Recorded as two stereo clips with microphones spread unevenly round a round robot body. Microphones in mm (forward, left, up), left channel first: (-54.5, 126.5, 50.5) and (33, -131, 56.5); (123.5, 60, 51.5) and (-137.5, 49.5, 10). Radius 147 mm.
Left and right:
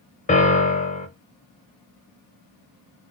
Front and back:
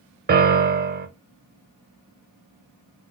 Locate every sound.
0.3 s a piano: 160° left, 0.7 m